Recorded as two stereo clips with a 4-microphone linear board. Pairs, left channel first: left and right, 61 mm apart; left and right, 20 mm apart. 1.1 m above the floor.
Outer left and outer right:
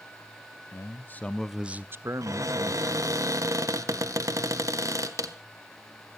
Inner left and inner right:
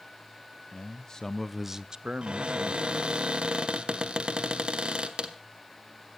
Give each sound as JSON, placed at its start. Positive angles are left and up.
{"t": 0.7, "sound": "a man speaking", "side_deg": 50, "distance_m": 0.8}
{"t": 2.2, "sound": "a cupboard door", "side_deg": -60, "distance_m": 1.5}